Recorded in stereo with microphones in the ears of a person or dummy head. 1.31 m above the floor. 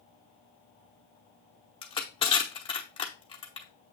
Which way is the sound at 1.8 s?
25° left (ahead or behind).